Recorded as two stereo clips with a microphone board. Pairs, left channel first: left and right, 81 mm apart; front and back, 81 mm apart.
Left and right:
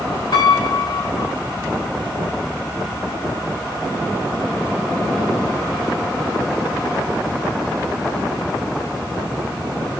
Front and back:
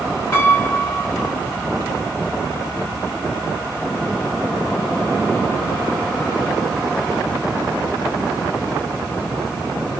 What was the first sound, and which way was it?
A piano, 60° left.